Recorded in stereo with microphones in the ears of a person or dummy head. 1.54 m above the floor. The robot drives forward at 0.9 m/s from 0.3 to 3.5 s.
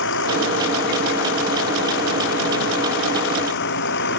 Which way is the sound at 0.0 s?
70° left (ahead or behind).